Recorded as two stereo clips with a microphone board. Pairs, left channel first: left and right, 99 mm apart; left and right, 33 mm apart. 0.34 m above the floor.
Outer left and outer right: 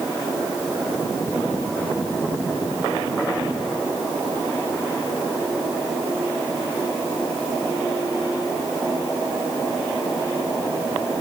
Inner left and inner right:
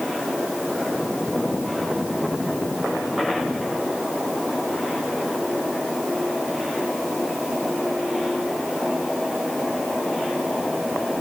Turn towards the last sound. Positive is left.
No sound to turn to.